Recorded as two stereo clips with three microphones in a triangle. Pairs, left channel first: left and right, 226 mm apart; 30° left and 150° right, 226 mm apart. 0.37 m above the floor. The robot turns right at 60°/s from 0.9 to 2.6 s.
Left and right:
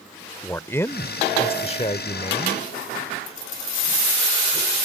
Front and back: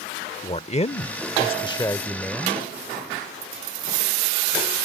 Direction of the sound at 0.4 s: 25° left.